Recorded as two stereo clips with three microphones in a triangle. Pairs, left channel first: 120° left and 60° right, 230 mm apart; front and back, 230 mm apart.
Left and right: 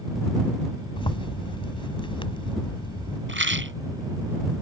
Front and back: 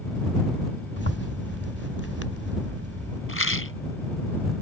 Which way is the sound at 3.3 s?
25° right.